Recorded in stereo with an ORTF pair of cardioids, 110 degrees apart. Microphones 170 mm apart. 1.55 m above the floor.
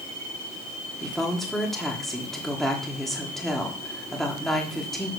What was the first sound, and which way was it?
A woman speaking, straight ahead.